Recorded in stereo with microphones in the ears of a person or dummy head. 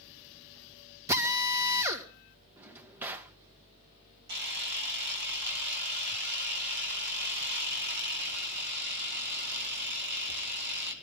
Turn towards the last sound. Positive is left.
turn(degrees=-50)  # may be behind; listen again after turning